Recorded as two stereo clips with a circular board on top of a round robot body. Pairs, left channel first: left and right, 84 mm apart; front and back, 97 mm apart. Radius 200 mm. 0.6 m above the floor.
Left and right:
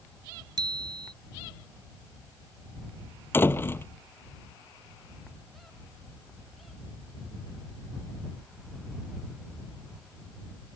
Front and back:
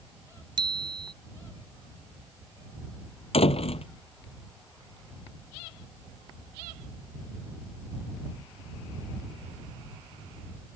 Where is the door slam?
25° left.